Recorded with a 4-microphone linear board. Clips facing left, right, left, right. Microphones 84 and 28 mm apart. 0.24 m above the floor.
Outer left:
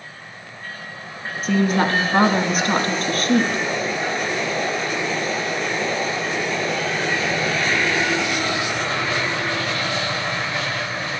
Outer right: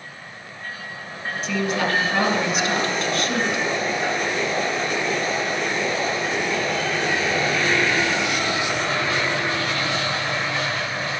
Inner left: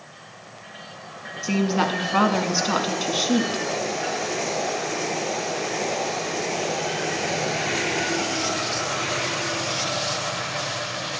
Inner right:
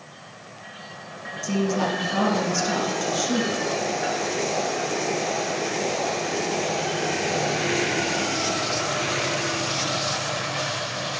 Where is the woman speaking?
45° left (ahead or behind), 1.8 m.